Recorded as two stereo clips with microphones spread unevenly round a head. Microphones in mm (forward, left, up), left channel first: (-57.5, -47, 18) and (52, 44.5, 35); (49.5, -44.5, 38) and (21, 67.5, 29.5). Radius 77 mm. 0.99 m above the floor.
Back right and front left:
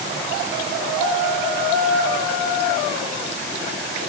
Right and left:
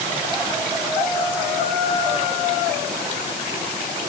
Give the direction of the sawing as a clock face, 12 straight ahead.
No sawing in this recording.